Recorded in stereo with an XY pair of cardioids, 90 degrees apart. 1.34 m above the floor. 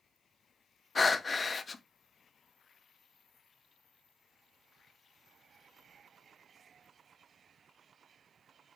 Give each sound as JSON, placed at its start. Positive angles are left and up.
{"t": 0.9, "sound": "breathing", "azimuth_deg": 35, "distance_m": 0.5}